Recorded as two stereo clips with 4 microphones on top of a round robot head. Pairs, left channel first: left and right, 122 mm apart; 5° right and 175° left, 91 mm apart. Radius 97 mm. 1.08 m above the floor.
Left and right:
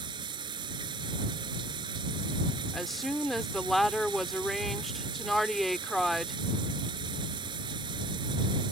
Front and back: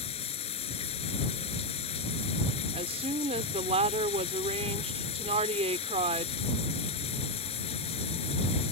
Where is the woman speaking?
Straight behind.